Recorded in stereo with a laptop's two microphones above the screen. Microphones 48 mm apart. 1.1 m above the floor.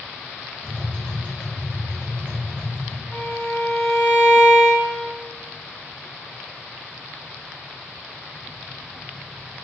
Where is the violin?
Centre (ahead or behind), 1.7 m.